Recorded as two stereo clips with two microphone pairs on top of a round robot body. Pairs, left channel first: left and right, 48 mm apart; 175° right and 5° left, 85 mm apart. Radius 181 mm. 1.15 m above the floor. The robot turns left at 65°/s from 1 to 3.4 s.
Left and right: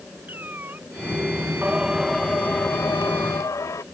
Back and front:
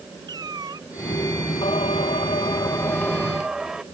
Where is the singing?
155° right; by 3.8 s 90° left.